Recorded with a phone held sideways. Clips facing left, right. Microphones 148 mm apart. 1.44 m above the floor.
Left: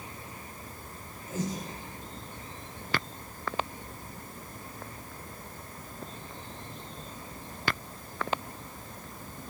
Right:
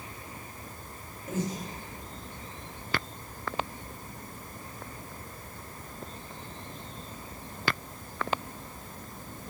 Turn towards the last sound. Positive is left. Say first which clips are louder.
# right 1 dB
turn(degrees=-70)  # may be behind; listen again after turning